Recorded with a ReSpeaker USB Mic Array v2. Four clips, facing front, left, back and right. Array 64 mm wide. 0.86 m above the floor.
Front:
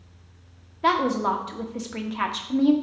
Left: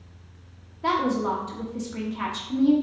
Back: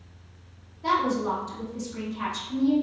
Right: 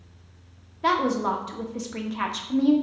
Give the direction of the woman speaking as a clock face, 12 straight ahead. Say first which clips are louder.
Right 1 dB, front 3 dB; 1 o'clock.